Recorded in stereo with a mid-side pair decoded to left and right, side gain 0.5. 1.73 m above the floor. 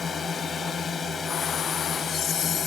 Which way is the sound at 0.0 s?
40° left.